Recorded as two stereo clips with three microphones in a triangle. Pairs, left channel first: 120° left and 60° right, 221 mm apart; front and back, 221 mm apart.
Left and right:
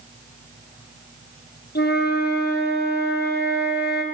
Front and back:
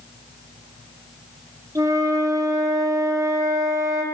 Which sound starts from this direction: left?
A flute, at 1.8 s.